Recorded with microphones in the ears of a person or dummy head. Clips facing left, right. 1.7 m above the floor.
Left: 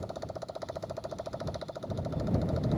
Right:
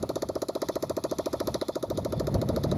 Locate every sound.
0.0 s a motorcycle: 70° right (ahead or behind)